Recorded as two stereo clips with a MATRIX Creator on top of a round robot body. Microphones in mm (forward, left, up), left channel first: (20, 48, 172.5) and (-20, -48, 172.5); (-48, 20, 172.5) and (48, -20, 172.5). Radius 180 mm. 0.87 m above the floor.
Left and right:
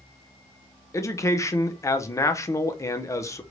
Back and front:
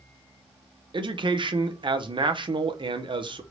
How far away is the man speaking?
About 0.7 m.